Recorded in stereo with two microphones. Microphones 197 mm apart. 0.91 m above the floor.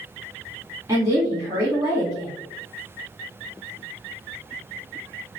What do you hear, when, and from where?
0.9 s a woman speaking: 15° right (ahead or behind), 1.5 m